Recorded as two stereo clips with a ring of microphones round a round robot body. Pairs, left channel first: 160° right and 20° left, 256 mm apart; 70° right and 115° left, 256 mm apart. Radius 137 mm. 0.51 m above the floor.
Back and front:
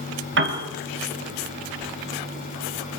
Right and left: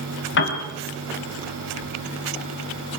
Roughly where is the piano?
Ahead right.